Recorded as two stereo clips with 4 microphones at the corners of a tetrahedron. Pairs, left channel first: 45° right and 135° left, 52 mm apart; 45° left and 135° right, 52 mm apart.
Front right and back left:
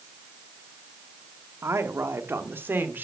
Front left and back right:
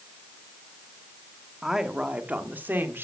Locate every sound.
1.6 s a woman speaking: 140° left, 1.1 m; by 3.0 s straight behind, 1.7 m